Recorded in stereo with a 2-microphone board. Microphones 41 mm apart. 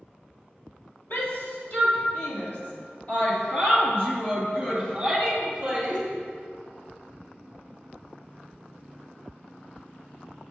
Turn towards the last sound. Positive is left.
turn(degrees=10)  # may be behind; listen again after turning